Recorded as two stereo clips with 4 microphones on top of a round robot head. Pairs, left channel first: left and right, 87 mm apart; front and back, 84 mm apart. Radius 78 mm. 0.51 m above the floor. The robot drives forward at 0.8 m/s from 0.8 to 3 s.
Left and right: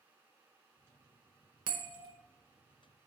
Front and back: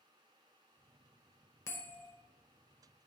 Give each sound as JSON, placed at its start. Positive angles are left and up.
{"t": 1.7, "sound": "a bell", "azimuth_deg": -60, "distance_m": 0.9}